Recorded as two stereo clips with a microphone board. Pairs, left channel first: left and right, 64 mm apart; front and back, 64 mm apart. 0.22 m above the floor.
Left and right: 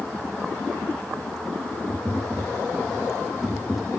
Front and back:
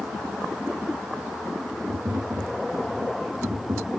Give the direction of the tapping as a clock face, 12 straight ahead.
7 o'clock.